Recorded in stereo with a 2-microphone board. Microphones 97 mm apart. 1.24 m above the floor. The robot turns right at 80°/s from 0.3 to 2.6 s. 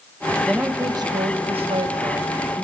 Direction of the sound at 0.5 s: 175° right.